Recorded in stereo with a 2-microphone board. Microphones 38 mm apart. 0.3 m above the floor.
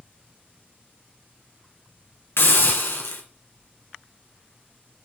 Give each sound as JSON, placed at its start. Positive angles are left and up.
{"t": 2.4, "sound": "a hiss", "side_deg": 75, "distance_m": 2.5}